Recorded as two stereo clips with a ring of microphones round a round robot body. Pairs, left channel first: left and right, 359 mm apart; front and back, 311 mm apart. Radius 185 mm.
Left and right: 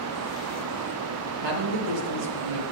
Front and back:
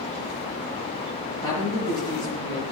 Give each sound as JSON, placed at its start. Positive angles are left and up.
{"t": 1.4, "sound": "a man speaking", "azimuth_deg": -80, "distance_m": 7.5}